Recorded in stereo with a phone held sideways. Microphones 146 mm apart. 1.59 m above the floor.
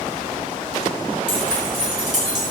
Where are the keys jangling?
5° right (ahead or behind), 8.5 m.